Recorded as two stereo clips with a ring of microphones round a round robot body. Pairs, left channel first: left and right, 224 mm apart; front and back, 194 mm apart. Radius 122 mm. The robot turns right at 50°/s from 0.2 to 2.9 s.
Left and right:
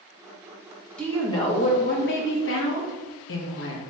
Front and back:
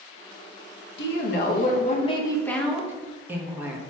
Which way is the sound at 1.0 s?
5° left.